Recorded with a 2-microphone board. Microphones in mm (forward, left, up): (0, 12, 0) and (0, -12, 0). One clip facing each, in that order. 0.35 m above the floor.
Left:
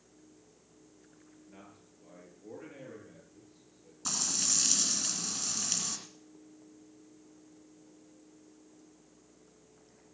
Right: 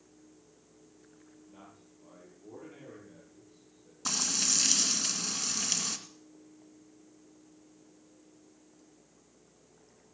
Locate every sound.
1.5 s a man speaking: 55° left (ahead or behind), 7.5 m; by 4.0 s 65° left (ahead or behind), 8 m
4.0 s frying: 20° right (ahead or behind), 2.0 m